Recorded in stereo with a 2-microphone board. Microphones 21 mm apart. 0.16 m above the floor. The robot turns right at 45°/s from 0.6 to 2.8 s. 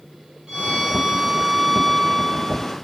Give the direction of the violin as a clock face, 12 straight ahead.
1 o'clock.